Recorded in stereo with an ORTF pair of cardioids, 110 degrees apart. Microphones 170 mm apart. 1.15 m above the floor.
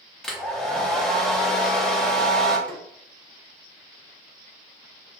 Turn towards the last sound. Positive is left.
turn(degrees=5)